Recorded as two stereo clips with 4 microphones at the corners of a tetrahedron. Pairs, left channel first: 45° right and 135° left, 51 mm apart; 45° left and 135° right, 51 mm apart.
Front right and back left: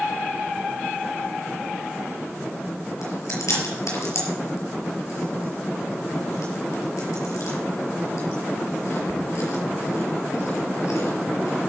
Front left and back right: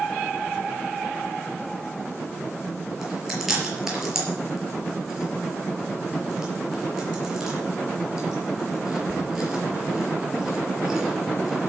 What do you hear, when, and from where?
3.0 s chewing: 55° right, 5 m